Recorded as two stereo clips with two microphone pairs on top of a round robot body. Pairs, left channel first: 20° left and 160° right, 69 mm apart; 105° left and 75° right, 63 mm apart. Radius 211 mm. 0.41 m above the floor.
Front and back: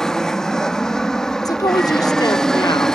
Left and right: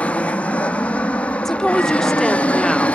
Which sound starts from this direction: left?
An aircraft, at 0.0 s.